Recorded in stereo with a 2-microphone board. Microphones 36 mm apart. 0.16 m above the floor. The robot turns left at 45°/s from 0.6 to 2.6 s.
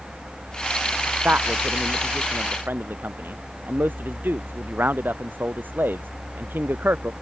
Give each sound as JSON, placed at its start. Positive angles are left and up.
{"t": 1.2, "sound": "a man speaking", "side_deg": -50}